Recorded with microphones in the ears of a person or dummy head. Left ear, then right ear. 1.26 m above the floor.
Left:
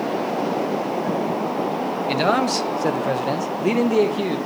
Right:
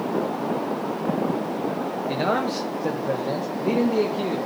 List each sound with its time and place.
2.1 s a man speaking: 75° left (ahead or behind), 1.8 m; by 4.4 s 45° left (ahead or behind), 1.6 m